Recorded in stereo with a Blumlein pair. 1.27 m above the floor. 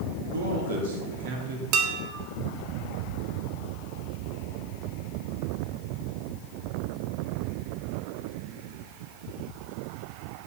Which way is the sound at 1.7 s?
40° right.